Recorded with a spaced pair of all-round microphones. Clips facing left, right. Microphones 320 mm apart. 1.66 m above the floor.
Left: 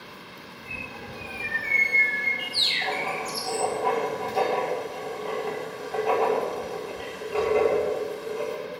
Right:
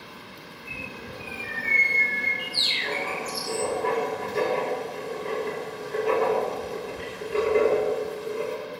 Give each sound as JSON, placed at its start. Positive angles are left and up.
{"t": 0.7, "sound": "a bird", "side_deg": -15, "distance_m": 8.5}
{"t": 2.8, "sound": "writing", "side_deg": -30, "distance_m": 4.5}